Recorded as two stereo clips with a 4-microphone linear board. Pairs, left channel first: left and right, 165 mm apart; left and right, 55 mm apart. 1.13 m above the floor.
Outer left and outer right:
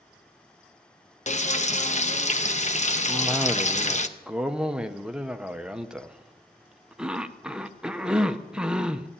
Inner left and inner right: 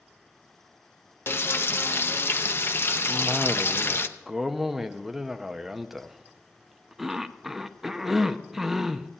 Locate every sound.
1.3 s frying: 45° left (ahead or behind), 0.8 m
3.1 s a cough: 5° right (ahead or behind), 0.7 m